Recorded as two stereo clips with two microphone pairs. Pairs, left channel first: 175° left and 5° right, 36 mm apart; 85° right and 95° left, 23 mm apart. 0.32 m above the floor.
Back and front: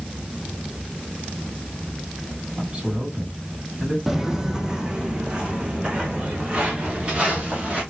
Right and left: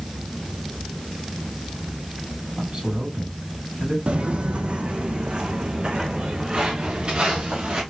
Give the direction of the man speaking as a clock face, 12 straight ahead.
10 o'clock.